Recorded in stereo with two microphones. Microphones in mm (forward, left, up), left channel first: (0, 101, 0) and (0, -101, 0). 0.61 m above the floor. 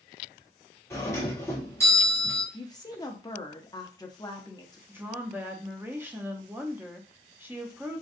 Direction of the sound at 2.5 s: 20° left (ahead or behind).